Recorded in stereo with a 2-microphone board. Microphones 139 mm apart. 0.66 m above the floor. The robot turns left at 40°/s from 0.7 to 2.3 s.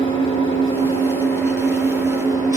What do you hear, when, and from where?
0.0 s an engine running: 35° left, 7.5 m; by 2.6 s 25° right, 7.5 m